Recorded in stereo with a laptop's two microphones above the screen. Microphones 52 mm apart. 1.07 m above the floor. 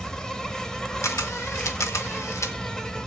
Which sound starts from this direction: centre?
An insect, at 0.0 s.